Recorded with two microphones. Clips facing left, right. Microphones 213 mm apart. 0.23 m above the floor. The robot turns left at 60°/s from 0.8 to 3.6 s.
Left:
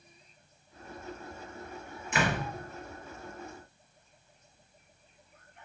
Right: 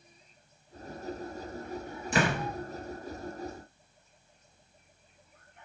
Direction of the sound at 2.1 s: 35° right (ahead or behind).